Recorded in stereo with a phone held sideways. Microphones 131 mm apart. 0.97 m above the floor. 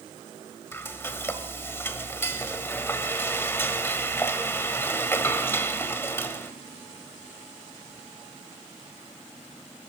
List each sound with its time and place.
0.7 s frying: 20° left (ahead or behind), 1.6 m